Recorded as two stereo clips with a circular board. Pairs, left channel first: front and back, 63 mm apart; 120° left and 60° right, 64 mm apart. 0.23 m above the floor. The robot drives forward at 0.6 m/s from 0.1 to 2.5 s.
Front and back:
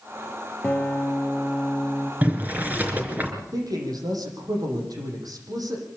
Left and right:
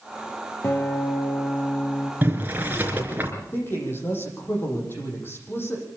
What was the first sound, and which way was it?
A guitar, 70° left.